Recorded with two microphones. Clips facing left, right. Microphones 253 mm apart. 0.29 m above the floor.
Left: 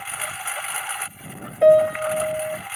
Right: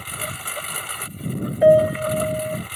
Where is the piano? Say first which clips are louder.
Even; 5° right (ahead or behind).